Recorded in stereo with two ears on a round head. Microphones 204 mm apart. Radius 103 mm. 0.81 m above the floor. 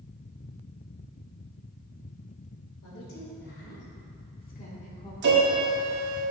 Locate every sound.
2.8 s a woman speaking: 70° left (ahead or behind), 3 m; by 5.1 s 25° left (ahead or behind), 2.0 m
5.2 s a piano: 50° right (ahead or behind), 1.6 m